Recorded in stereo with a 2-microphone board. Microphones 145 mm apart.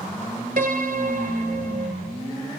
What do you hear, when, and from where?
0.6 s a piano: 75° right (ahead or behind), 1.0 m